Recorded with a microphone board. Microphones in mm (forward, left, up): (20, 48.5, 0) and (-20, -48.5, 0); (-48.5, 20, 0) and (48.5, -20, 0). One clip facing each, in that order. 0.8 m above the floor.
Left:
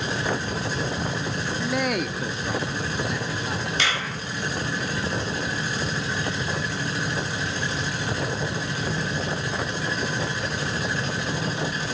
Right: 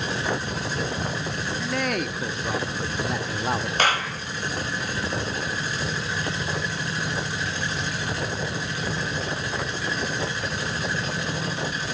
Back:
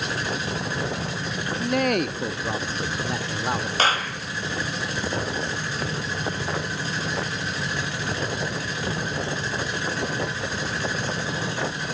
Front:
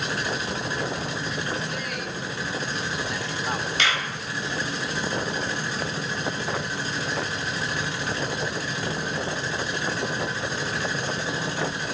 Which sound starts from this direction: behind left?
A man speaking, at 1.6 s.